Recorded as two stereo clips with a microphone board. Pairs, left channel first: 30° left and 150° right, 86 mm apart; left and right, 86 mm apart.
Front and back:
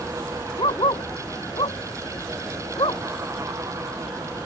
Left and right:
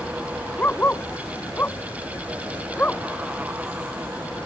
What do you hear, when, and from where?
0.6 s a dog barking: 25° left; by 3.0 s 20° left